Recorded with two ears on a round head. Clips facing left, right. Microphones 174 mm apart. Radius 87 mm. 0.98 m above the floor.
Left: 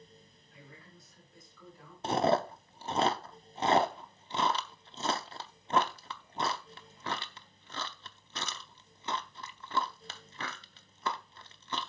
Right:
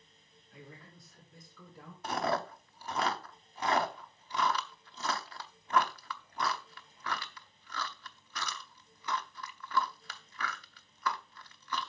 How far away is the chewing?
About 0.7 m.